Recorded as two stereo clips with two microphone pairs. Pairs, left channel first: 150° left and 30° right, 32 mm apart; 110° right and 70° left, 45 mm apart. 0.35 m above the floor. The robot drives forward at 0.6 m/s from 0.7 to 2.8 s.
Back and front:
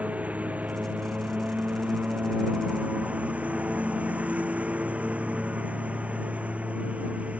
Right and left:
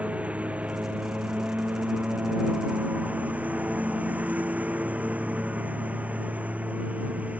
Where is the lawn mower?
10° left; by 7.4 s 15° left.